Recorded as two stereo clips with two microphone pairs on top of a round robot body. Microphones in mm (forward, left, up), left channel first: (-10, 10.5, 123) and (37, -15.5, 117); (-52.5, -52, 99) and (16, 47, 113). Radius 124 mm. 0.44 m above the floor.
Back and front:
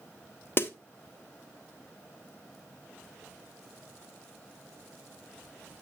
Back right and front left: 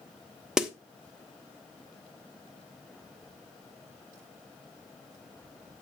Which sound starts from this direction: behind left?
A snare drum, at 0.6 s.